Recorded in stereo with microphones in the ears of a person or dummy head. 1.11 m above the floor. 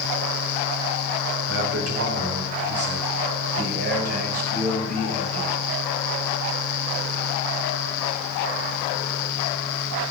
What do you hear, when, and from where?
1.5 s a man speaking: 85° right, 5 m; by 5.5 s 35° right (ahead or behind), 7.5 m